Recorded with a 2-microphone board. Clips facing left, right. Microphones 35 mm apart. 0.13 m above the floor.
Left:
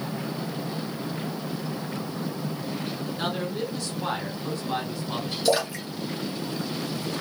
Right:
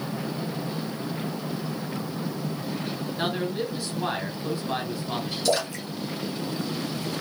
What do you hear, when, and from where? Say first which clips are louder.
3.2 s a man speaking: right 2 dB; 15° right (ahead or behind), 1.3 m
5.5 s a splash: left 2 dB; 10° left (ahead or behind), 1.1 m